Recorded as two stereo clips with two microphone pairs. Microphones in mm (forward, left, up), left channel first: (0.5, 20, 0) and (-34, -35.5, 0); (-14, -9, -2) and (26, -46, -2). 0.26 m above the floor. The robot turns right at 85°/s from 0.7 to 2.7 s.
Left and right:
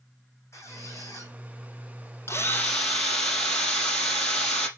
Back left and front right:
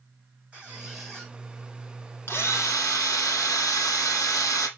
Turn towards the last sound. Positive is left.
turn(degrees=135)